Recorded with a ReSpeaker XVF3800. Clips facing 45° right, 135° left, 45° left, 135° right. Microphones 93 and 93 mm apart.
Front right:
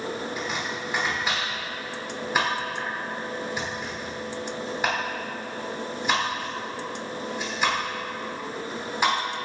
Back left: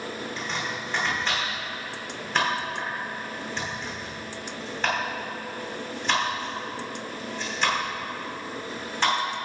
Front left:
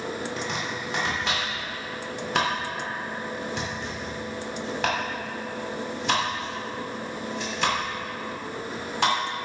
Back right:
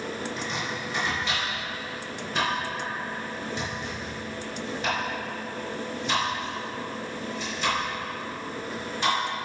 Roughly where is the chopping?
Ahead left.